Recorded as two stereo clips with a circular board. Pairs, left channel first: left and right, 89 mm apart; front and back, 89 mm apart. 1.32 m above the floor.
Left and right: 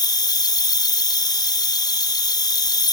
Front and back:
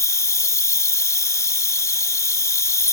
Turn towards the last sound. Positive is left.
turn(degrees=55)